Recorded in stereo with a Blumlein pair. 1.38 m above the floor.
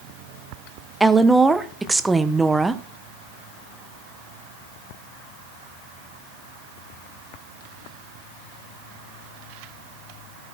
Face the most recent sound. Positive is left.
turn(degrees=-5)